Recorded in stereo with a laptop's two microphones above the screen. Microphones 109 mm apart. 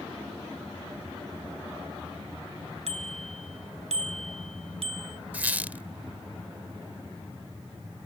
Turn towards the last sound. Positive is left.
turn(degrees=-15)  # may be behind; listen again after turning